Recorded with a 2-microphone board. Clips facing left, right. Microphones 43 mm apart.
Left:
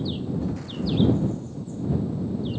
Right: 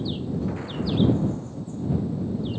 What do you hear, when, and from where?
0.4 s an explosion: 25° right (ahead or behind)